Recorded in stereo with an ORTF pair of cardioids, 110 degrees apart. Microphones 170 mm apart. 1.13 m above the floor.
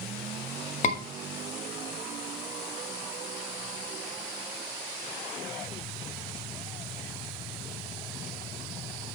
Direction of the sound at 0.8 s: 45° left.